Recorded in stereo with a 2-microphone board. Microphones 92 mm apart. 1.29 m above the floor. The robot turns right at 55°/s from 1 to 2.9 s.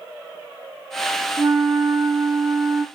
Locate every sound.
1.4 s a flute: 115° right, 1.0 m; by 2.9 s 30° right, 1.0 m